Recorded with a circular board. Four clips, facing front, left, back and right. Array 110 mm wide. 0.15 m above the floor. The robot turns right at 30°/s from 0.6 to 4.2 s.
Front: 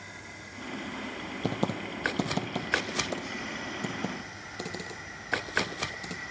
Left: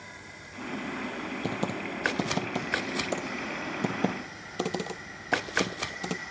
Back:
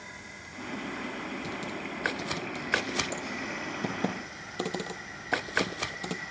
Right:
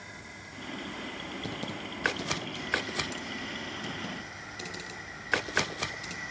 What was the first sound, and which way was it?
Typing on a keyboard, 30° left.